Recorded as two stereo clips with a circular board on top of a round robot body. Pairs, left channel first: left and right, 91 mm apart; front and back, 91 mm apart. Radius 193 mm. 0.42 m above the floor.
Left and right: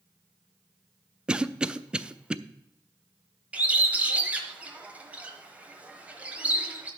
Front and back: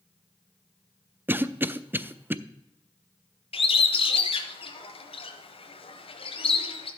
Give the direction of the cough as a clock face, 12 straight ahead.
5 o'clock.